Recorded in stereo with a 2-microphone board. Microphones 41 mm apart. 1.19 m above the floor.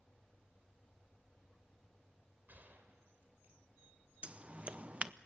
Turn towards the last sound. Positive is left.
turn(degrees=-35)  # may be behind; listen again after turning